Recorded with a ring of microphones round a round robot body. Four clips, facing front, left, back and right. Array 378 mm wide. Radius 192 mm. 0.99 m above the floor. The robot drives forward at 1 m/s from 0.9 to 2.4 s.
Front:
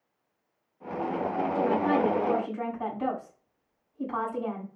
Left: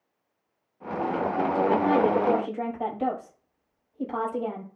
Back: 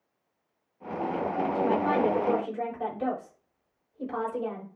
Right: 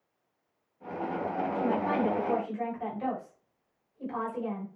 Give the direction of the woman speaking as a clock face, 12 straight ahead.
8 o'clock.